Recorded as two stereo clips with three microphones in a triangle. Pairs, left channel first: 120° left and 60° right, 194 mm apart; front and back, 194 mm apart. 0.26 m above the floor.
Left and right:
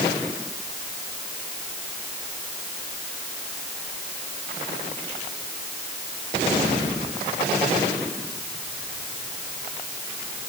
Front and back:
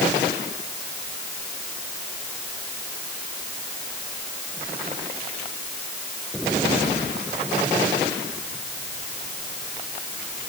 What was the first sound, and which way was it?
Only background noise.